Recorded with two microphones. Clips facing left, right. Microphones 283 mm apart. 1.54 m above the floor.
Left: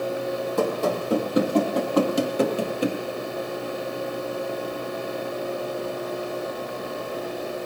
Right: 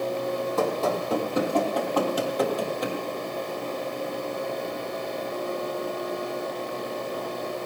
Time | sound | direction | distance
0.6 | running footsteps | 15° left (ahead or behind) | 2.5 m